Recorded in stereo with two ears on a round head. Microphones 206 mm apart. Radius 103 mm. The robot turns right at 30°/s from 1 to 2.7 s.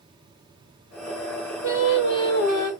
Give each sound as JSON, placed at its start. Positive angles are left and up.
{"t": 1.6, "sound": "singing", "azimuth_deg": 105, "distance_m": 2.0}